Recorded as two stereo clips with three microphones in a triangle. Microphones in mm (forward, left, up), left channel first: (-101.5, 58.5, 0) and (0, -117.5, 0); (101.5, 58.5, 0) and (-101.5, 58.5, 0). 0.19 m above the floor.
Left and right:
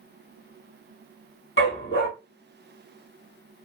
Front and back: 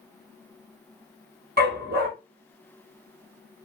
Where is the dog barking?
140° left, 1.3 m.